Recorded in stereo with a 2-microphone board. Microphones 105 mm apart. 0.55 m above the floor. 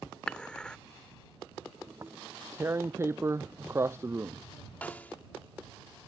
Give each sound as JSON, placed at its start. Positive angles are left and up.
{"t": 0.3, "sound": "dishes clattering", "side_deg": 5}
{"t": 1.9, "sound": "tearing paper", "side_deg": -25}
{"t": 4.8, "sound": "a snare drum", "side_deg": 15}